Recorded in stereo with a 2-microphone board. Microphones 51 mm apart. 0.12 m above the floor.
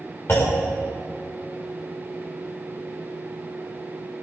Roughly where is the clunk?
Left.